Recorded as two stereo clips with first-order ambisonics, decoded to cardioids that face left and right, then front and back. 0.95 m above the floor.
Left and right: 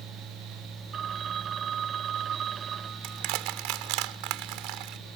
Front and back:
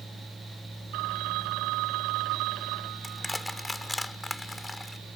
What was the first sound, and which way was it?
A phone ringing, 150° right.